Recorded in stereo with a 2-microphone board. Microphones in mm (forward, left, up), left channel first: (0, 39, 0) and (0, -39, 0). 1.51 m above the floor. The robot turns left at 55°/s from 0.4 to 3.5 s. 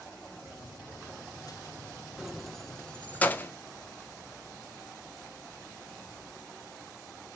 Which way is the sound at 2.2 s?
10° right (ahead or behind).